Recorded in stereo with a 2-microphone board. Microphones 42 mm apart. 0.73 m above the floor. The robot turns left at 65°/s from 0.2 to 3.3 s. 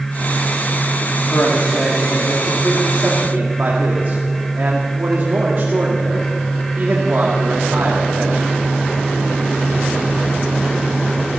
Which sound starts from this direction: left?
A man speaking, at 1.3 s.